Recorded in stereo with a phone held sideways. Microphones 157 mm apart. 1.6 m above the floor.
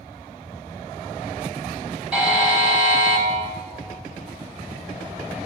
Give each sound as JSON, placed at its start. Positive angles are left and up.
{"t": 2.1, "sound": "a buzzer", "side_deg": -5, "distance_m": 2.0}